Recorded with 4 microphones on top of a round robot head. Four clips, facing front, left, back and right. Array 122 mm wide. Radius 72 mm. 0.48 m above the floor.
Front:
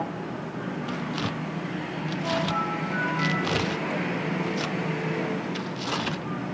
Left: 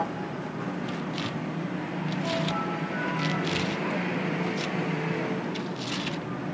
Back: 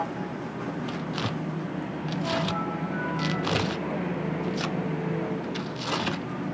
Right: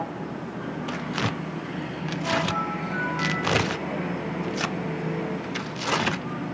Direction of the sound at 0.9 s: 95° right.